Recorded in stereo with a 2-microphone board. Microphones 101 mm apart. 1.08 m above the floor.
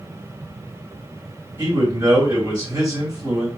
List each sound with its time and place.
1.6 s a man speaking: 35° right (ahead or behind), 2 m